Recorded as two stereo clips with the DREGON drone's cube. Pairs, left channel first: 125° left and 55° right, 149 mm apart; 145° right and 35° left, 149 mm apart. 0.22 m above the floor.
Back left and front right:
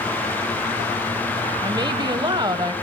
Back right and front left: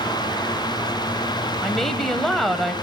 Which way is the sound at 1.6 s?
60° right.